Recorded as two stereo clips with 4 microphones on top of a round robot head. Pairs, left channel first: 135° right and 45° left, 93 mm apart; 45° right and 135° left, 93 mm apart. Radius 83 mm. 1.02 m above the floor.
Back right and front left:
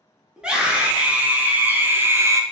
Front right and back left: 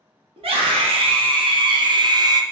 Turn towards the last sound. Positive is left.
turn(degrees=95)